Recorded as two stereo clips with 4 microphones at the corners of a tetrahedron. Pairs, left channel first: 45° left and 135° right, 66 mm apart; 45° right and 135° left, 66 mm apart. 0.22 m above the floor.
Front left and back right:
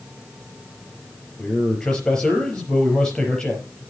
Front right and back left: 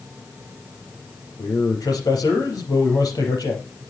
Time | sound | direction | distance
1.4 | a man speaking | 30° right | 4.5 m